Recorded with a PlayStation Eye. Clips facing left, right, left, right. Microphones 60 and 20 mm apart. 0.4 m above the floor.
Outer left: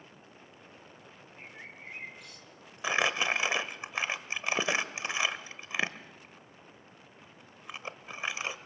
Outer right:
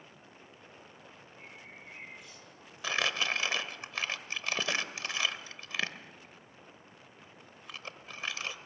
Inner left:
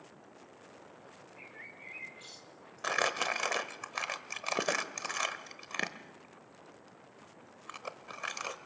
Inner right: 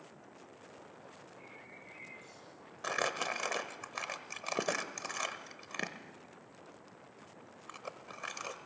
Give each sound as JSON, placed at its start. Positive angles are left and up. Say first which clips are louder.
{"t": 1.4, "sound": "a bird", "louder": "outer left 4 dB, inner left 6 dB", "side_deg": 65, "distance_m": 2.5}
{"t": 2.8, "sound": "crumpling", "louder": "outer left 3 dB, inner left 3 dB", "side_deg": 20, "distance_m": 1.0}